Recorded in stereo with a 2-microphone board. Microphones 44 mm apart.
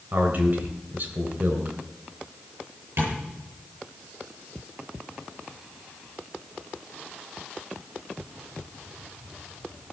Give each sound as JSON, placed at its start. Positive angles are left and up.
{"t": 0.1, "sound": "a man speaking", "side_deg": -50, "distance_m": 3.0}
{"t": 3.0, "sound": "tapping", "side_deg": -75, "distance_m": 8.0}